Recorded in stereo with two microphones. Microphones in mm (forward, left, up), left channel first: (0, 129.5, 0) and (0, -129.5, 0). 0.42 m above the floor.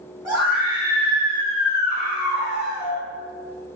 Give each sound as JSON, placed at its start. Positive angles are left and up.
{"t": 0.2, "sound": "a scream", "side_deg": -15, "distance_m": 0.9}